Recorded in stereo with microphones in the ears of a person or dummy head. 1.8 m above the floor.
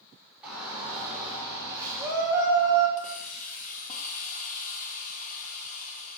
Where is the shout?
10° right (ahead or behind), 5.5 m; by 2.9 s 20° right (ahead or behind), 5.5 m.